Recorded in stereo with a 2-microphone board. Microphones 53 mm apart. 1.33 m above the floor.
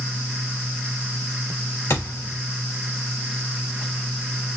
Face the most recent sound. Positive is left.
turn(degrees=65)  # may be behind; listen again after turning